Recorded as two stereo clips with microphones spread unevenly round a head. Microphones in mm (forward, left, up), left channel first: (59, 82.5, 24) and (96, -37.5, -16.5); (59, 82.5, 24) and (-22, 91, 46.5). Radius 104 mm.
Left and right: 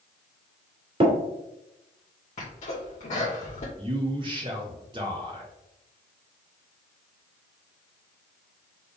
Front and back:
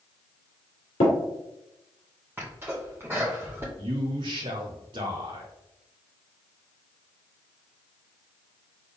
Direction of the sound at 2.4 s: 115° left.